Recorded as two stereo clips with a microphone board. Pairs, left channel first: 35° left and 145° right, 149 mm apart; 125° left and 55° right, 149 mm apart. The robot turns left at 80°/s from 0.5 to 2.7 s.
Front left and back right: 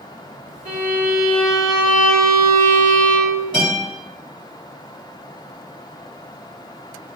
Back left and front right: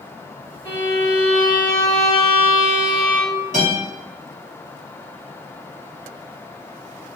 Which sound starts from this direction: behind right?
A violin, at 0.7 s.